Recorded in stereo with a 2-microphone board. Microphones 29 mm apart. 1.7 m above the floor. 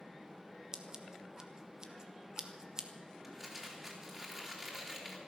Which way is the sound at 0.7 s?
25° right (ahead or behind).